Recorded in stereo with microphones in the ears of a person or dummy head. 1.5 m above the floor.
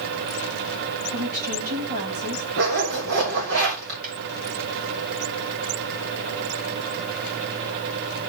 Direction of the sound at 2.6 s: 60° right (ahead or behind).